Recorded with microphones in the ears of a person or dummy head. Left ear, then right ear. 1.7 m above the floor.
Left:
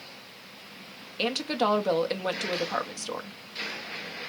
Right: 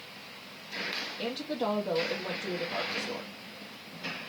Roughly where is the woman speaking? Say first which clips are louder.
Left 10 dB; left.